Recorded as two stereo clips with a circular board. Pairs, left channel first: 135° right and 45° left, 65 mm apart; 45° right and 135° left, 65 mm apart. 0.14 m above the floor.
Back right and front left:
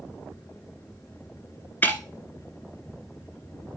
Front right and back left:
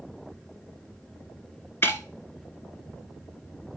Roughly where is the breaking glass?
Right.